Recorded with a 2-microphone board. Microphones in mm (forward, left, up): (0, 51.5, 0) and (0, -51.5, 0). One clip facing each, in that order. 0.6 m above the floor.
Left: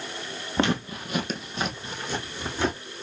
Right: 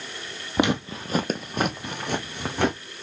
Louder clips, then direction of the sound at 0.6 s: Right 2 dB; 15° right (ahead or behind).